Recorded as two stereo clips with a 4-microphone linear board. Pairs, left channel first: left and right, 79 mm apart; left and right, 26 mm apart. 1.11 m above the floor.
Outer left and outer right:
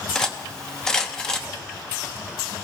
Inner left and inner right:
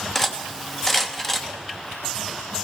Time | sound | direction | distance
0.1 | cutlery clinking | 10° left (ahead or behind) | 0.7 m